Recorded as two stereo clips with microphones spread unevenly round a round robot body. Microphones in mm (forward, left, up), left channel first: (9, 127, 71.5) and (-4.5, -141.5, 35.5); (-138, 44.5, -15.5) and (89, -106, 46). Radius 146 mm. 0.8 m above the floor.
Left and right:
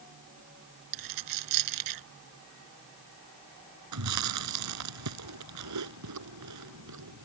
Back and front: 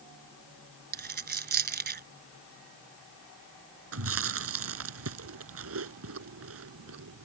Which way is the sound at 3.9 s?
70° right.